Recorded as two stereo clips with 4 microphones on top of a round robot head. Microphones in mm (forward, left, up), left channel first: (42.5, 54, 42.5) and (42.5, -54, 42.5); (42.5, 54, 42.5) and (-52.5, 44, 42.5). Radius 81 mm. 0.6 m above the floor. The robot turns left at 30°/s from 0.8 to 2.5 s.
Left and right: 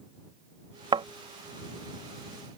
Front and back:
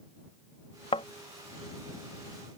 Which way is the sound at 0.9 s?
45° right.